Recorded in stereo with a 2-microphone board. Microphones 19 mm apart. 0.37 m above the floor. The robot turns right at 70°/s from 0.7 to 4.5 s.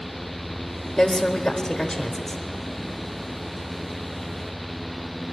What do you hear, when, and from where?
1.0 s a woman speaking: 20° left (ahead or behind), 0.9 m; by 2.4 s 5° left (ahead or behind), 0.9 m